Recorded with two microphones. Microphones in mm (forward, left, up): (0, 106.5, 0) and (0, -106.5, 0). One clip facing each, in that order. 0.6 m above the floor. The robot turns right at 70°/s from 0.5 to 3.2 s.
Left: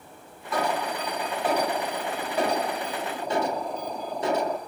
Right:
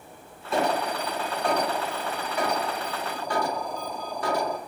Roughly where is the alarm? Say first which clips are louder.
Right 2 dB; ahead right.